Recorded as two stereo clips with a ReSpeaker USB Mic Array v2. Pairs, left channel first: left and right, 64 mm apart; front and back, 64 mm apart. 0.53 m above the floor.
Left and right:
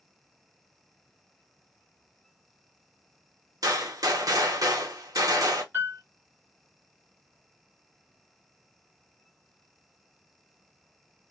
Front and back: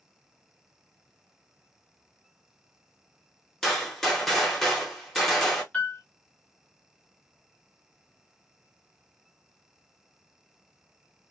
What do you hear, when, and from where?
3.6 s a gunshot: 85° right, 1.0 m
5.7 s a piano: 60° right, 1.1 m